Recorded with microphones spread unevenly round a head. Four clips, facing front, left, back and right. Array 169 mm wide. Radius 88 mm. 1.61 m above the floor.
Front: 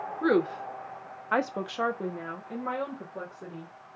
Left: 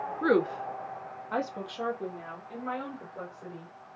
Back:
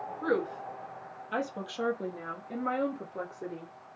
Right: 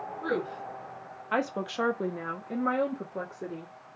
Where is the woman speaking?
40° left, 0.8 m; by 3.7 s 105° right, 1.5 m.